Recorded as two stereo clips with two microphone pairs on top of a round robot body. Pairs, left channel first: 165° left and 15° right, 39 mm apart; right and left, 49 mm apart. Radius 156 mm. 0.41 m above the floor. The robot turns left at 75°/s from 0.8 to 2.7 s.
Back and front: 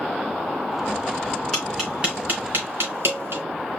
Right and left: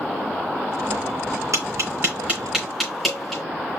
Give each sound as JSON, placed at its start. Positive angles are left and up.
{"t": 1.5, "sound": "tapping", "azimuth_deg": 85, "distance_m": 3.0}